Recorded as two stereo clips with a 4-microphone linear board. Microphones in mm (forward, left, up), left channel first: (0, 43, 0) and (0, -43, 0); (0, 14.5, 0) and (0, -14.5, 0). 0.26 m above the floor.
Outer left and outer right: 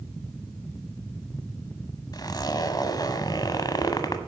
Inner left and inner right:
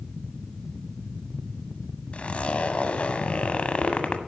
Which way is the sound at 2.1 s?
50° left (ahead or behind).